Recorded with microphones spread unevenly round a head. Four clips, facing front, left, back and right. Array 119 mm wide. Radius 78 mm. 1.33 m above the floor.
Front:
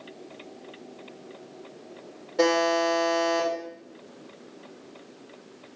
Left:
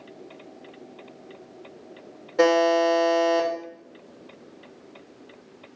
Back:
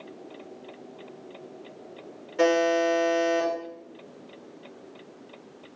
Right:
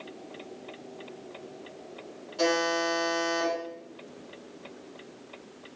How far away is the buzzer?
About 3 m.